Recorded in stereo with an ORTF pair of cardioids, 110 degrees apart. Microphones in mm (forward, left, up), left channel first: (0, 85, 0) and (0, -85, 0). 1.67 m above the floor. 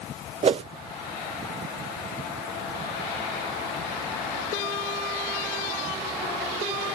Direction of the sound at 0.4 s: 35° right.